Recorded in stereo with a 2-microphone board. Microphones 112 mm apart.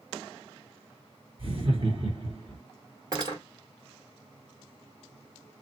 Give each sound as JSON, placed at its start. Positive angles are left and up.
{"t": 1.4, "sound": "laughter", "side_deg": -45, "distance_m": 1.8}
{"t": 3.1, "sound": "cutlery clinking", "side_deg": -35, "distance_m": 1.3}